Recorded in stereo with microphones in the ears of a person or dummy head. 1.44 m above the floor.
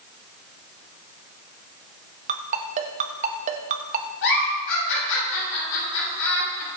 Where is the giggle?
70° left (ahead or behind), 6 m.